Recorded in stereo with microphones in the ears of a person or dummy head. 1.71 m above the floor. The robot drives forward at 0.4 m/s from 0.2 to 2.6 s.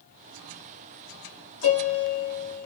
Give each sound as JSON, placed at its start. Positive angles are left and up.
{"t": 1.6, "sound": "a piano", "side_deg": 70, "distance_m": 0.9}